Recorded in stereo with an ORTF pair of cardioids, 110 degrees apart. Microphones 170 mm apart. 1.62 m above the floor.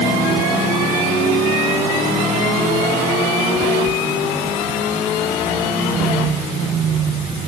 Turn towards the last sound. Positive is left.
No sound to turn to.